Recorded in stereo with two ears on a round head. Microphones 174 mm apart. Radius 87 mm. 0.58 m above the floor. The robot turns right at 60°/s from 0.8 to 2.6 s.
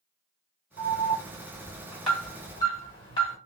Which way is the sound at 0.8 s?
40° right (ahead or behind).